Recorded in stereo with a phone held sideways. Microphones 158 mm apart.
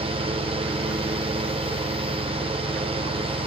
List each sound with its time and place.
0.0 s a fan: 35° right (ahead or behind), 0.7 m